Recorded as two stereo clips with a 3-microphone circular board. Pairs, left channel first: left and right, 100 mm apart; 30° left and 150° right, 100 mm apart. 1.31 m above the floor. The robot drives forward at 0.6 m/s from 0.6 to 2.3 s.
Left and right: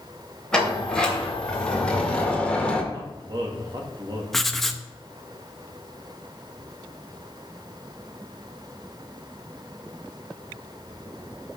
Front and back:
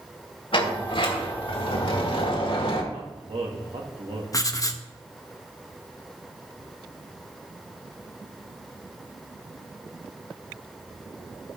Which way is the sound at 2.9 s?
130° right.